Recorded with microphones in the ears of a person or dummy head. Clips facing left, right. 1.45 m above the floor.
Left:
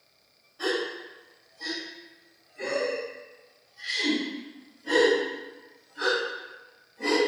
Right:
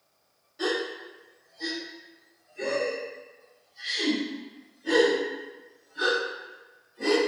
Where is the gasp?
30° right (ahead or behind), 1.4 m.